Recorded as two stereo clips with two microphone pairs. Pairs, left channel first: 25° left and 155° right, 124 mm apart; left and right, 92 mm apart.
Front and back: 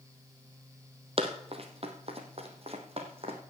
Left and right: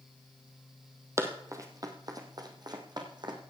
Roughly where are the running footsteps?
Behind right.